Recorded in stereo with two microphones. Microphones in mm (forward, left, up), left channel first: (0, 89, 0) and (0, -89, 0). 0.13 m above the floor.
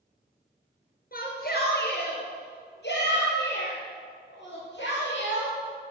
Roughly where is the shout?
Left.